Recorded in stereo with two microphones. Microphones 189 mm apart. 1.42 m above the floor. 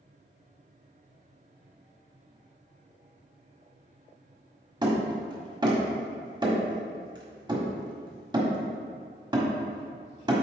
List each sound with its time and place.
4.8 s hammering: 25° right (ahead or behind), 1.5 m